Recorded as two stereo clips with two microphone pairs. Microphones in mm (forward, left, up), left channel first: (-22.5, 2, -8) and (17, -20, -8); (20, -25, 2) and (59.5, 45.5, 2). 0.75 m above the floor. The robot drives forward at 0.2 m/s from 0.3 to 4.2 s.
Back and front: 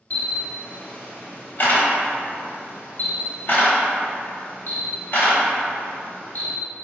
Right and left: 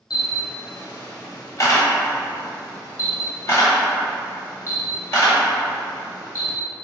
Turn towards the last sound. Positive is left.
turn(degrees=-170)